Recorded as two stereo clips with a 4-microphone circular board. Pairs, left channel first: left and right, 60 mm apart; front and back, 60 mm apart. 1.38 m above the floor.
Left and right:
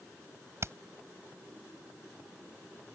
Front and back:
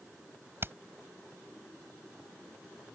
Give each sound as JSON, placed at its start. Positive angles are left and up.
{"t": 0.6, "sound": "hammering", "azimuth_deg": -130}